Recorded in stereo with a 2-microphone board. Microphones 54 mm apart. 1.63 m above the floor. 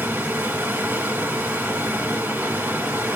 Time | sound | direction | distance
0.0 | running water | 45° right (ahead or behind) | 2 m